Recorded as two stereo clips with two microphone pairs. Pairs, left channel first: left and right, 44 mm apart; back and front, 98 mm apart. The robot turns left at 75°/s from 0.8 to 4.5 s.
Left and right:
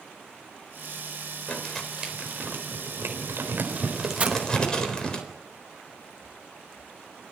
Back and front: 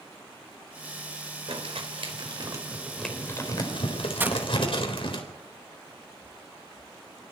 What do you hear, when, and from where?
1.5 s crumpling: 25° left, 4 m; by 5.2 s 160° left, 4 m
4.2 s breaking glass: 55° right, 0.9 m; by 4.4 s 70° right, 0.9 m